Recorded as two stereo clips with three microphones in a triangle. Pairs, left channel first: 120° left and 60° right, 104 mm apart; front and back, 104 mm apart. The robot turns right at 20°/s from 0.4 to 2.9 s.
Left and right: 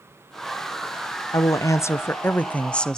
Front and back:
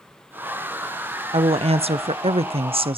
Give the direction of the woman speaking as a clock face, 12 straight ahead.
6 o'clock.